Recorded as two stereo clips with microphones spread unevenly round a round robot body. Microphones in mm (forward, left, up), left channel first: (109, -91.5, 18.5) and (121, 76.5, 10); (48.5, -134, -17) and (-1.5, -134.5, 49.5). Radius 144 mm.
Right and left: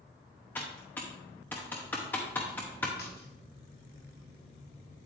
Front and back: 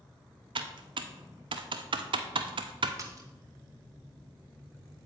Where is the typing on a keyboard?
175° right, 0.5 m.